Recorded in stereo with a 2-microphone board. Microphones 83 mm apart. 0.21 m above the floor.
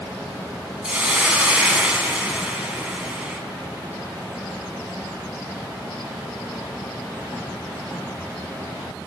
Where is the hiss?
15° right (ahead or behind), 2 m.